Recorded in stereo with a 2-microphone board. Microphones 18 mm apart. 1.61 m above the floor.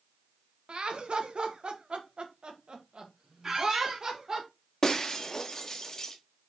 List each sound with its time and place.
0.7 s laughter: 70° right (ahead or behind), 1.7 m; by 4.4 s 35° right (ahead or behind), 2.5 m
3.4 s a squeak: 25° right (ahead or behind), 1.8 m
4.8 s breaking glass: 30° left (ahead or behind), 1.3 m